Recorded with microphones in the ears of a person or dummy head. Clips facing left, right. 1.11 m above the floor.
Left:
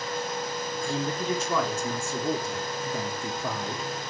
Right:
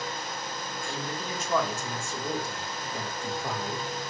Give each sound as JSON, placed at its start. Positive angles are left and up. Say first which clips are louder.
{"t": 0.8, "sound": "a man speaking", "louder": "left 7 dB", "side_deg": 80, "distance_m": 3.0}